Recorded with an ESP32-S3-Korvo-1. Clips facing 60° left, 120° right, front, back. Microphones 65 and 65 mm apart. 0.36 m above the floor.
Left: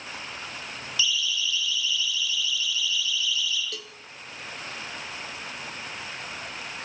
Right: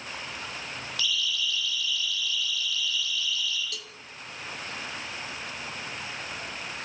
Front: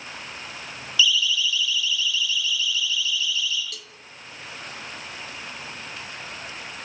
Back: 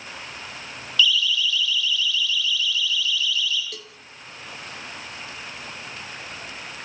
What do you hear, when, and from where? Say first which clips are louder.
1.0 s a siren: left 3 dB, back 1 dB; 80° right, 7.5 m; by 3.6 s 75° right, 8.5 m
3.7 s a cowbell: left 2 dB, back 3 dB; 120° left, 1.6 m